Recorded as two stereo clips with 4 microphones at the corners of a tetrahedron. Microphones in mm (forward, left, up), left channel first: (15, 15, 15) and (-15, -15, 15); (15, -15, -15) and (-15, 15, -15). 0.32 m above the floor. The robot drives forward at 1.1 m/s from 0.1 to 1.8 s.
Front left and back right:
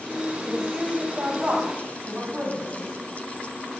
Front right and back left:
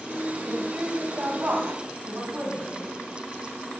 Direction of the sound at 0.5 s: 145° left.